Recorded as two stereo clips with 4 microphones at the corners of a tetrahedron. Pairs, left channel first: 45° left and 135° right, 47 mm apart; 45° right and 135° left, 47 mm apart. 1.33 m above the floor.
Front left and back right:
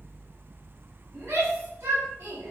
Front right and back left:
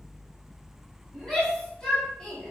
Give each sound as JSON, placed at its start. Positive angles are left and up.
{"t": 1.1, "sound": "a shout", "azimuth_deg": -125, "distance_m": 7.5}